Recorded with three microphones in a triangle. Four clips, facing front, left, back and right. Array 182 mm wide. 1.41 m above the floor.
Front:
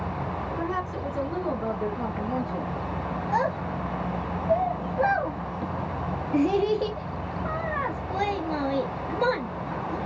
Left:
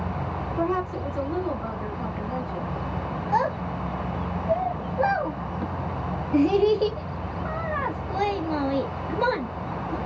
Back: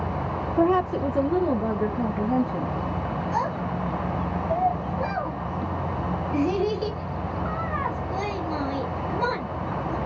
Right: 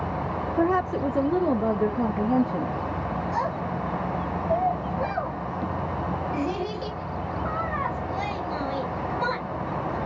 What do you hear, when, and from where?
0.6 s a woman speaking: 140° right, 0.7 m; by 2.8 s 105° right, 1.8 m
3.3 s a child speaking: 65° left, 1.8 m